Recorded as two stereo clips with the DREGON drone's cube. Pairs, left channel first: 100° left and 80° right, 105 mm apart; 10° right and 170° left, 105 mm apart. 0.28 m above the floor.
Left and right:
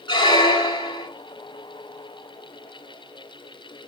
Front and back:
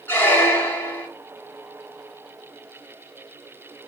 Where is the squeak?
55° left, 0.7 m.